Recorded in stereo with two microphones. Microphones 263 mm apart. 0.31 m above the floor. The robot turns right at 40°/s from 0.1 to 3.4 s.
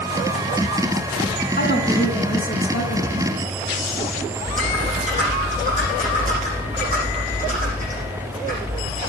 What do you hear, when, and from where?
1.6 s a woman speaking: 40° left, 2.5 m; by 3.1 s 105° left, 2.5 m
4.4 s typing on a keyboard: 30° right (ahead or behind), 8.5 m